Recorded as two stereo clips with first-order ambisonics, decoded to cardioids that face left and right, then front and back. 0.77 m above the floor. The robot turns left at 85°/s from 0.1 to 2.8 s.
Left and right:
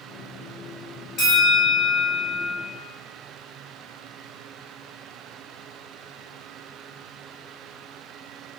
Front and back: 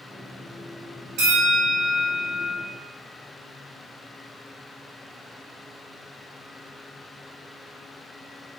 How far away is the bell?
About 1.1 m.